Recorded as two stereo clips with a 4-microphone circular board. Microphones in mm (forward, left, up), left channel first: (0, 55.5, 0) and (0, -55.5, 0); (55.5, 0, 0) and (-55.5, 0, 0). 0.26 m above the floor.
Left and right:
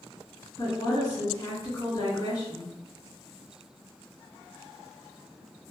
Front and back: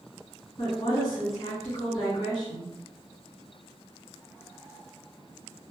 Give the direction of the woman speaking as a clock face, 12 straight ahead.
11 o'clock.